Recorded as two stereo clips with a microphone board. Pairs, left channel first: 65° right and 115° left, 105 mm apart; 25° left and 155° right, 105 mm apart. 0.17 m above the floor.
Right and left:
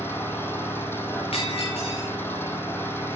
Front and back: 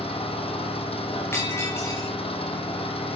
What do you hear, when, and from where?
0.0 s an engine running: straight ahead, 3.5 m
1.3 s breaking glass: 40° right, 6 m